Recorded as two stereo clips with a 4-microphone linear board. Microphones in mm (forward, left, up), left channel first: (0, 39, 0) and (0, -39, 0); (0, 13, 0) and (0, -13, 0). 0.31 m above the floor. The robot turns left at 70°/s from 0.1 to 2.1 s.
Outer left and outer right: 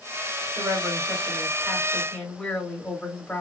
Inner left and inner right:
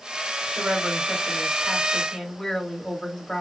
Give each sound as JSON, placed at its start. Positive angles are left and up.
{"t": 0.6, "sound": "a woman speaking", "azimuth_deg": -95, "distance_m": 1.4}